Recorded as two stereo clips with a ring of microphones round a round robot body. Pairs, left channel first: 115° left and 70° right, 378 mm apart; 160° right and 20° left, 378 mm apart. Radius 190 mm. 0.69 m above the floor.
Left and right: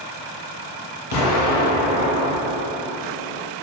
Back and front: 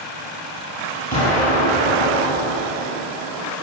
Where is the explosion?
135° left, 1.0 m.